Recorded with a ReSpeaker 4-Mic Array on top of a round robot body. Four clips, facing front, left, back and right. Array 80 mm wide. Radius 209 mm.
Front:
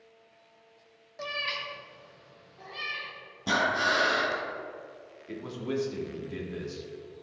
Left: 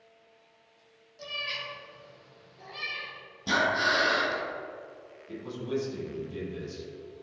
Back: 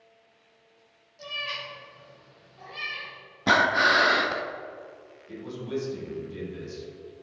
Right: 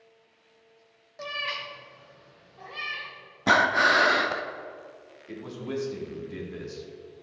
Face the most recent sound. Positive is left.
turn(degrees=-45)